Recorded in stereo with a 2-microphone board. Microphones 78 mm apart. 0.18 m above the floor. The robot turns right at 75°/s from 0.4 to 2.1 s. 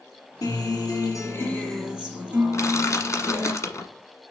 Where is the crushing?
45° left (ahead or behind), 1.1 m.